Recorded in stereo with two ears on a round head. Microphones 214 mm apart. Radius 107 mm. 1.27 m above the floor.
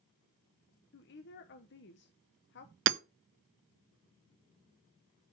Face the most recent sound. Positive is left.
turn(degrees=-50)  # may be behind; listen again after turning